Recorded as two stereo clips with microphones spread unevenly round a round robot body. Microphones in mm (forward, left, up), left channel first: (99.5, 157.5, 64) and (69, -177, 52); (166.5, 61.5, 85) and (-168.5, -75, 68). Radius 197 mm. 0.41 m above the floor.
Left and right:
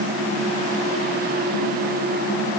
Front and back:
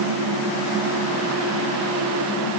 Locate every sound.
Only background noise.